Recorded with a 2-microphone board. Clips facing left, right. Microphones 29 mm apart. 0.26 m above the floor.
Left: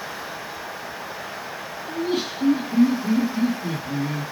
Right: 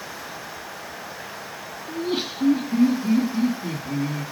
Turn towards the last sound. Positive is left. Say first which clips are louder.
# left 1 dB
turn(degrees=-70)  # may be behind; listen again after turning